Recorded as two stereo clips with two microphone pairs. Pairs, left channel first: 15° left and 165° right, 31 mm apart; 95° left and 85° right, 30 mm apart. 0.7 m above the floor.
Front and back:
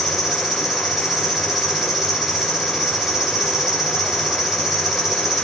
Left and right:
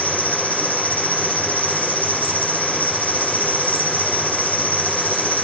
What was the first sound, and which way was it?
An insect, 120° left.